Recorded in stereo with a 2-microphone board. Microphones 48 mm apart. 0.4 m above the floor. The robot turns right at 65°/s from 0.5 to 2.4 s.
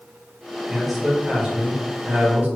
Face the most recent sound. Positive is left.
turn(degrees=-80)